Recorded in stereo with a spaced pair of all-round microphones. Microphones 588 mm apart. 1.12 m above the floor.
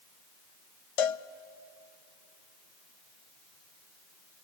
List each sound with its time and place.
1.0 s a cowbell: 65° left (ahead or behind), 0.5 m